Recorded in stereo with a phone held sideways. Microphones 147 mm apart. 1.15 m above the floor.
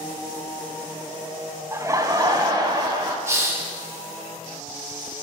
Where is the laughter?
20° right (ahead or behind), 0.7 m; by 3.2 s 30° right (ahead or behind), 2 m.